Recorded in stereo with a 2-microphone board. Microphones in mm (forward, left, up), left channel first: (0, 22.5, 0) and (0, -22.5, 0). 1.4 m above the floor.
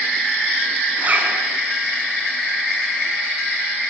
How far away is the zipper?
About 6.5 m.